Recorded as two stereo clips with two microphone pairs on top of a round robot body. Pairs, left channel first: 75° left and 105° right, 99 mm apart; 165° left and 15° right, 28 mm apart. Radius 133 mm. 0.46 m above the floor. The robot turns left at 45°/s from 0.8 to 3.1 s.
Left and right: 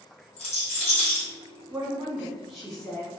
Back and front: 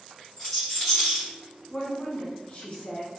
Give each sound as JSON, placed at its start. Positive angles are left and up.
{"t": 0.4, "sound": "a rattle", "azimuth_deg": 90, "distance_m": 0.7}
{"t": 1.7, "sound": "a woman speaking", "azimuth_deg": -160, "distance_m": 1.0}